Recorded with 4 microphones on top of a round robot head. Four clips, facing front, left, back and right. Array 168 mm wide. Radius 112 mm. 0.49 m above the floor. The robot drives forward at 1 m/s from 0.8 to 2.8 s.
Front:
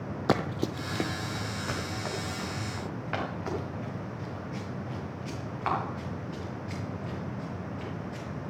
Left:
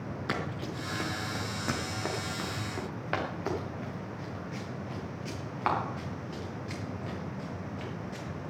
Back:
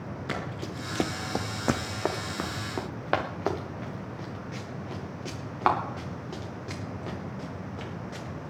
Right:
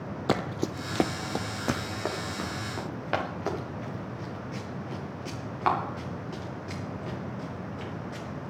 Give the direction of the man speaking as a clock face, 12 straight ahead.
I don't hear a man speaking.